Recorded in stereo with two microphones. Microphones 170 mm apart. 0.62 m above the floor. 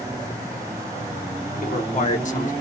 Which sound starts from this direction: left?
A man speaking, at 1.6 s.